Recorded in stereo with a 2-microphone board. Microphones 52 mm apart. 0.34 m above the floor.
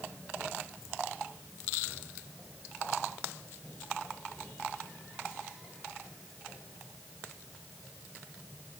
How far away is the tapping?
I don't hear tapping.